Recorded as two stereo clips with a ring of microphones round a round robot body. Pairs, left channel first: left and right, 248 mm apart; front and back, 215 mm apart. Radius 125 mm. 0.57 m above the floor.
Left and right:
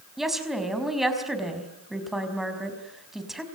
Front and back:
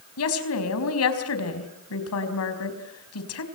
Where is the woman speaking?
Straight ahead, 4.5 m.